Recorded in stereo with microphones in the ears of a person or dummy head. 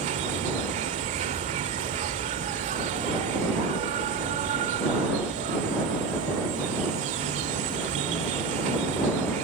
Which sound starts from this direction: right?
An insect, at 0.0 s.